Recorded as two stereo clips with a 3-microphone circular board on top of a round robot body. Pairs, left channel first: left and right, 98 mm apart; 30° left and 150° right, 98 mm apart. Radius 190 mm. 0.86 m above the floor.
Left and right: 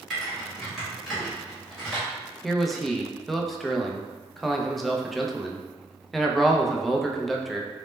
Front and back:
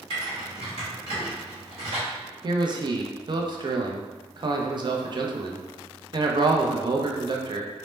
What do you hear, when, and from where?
0.1 s typing on a keyboard: straight behind, 1.0 m
2.4 s a man speaking: straight behind, 0.5 m